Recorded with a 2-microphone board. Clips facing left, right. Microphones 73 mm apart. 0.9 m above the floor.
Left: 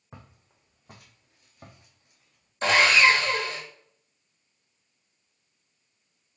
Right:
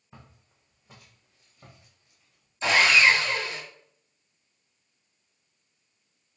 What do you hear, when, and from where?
0.1 s footsteps: 65° left (ahead or behind), 1.9 m; by 2.5 s 50° left (ahead or behind), 2 m
2.6 s sawing: 65° left (ahead or behind), 1.7 m